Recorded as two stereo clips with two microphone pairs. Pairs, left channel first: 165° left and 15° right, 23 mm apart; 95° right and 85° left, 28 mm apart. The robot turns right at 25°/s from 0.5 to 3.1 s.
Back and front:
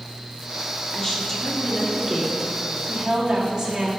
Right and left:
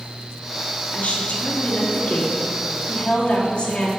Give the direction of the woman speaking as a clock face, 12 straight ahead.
4 o'clock.